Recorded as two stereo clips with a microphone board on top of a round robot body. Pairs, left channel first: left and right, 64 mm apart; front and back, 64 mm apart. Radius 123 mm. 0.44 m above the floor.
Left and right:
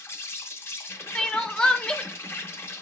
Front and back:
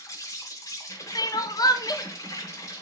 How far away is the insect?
About 1.0 m.